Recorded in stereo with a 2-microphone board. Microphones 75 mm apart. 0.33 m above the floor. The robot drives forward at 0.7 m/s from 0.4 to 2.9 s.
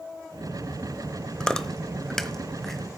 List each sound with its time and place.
1.4 s chewing: 10° left (ahead or behind), 0.8 m; by 3.0 s 5° left (ahead or behind), 1.6 m